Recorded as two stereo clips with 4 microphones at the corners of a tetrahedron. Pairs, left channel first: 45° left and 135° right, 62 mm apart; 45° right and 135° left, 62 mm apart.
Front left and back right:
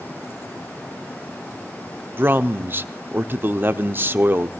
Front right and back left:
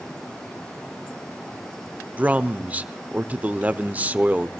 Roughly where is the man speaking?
Behind.